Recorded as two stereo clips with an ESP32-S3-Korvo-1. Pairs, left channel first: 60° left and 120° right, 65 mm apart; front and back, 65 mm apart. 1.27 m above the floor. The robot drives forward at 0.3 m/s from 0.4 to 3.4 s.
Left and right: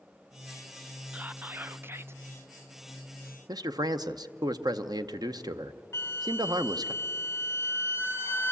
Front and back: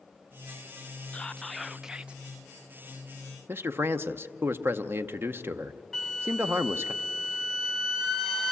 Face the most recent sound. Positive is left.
turn(degrees=95)